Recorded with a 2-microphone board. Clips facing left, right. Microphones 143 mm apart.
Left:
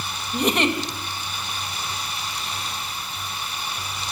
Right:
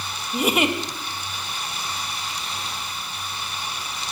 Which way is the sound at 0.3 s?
5° right (ahead or behind).